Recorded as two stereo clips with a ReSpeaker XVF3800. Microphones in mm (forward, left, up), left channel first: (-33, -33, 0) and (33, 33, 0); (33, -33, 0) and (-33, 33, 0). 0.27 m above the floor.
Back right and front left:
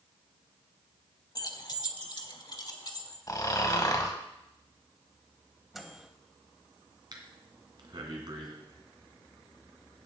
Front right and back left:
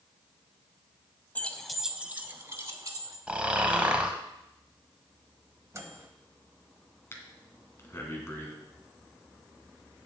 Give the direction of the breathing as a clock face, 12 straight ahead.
12 o'clock.